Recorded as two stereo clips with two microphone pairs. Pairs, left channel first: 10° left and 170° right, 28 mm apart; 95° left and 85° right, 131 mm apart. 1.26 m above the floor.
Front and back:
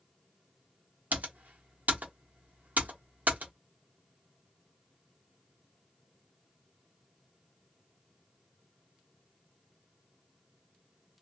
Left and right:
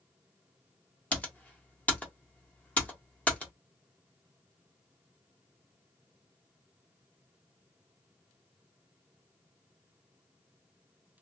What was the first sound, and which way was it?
Typing on a keyboard, 175° left.